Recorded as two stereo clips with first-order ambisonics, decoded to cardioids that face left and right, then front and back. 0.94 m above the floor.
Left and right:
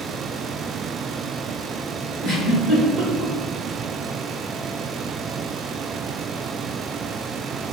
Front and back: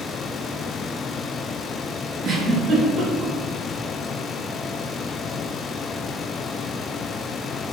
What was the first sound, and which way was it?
A giggle, 130° right.